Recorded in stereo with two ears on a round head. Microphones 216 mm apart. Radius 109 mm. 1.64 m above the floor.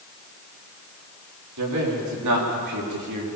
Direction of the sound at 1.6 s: 85° right.